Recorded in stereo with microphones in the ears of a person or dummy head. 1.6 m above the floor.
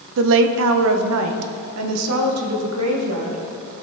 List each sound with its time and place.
0.2 s a woman speaking: 65° right (ahead or behind), 0.7 m; by 3.4 s 90° right, 2.5 m